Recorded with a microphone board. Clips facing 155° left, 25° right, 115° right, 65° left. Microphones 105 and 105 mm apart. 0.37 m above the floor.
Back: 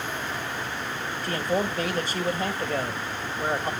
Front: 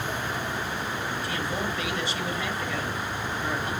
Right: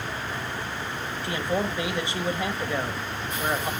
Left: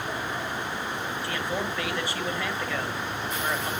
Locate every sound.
1.2 s a man speaking: 175° right, 1.6 m